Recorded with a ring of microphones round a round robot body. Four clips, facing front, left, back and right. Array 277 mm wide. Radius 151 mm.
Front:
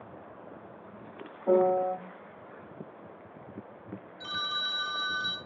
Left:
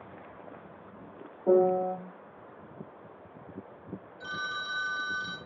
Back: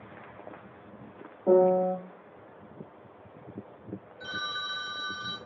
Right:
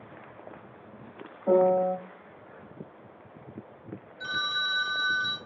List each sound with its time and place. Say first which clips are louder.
1.5 s a piano: right 2 dB, back 3 dB; 135° left, 1.4 m
4.2 s a phone ringing: right 4 dB, front 1 dB; 30° right, 0.7 m